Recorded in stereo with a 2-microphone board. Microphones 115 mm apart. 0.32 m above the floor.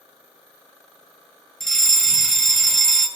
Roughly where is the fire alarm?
Centre.